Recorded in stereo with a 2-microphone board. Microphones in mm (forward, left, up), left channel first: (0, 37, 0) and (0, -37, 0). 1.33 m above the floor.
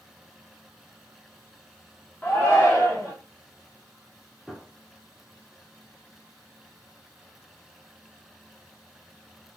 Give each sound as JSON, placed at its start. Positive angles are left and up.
{"t": 2.2, "sound": "a shout", "side_deg": 20, "distance_m": 0.7}
{"t": 4.5, "sound": "a gunshot", "side_deg": 5, "distance_m": 0.8}